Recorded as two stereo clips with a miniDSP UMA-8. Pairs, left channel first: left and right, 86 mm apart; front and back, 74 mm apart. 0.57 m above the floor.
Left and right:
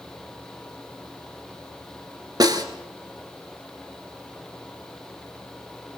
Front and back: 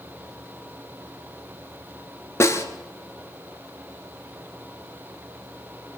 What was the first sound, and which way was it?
A snare drum, 55° right.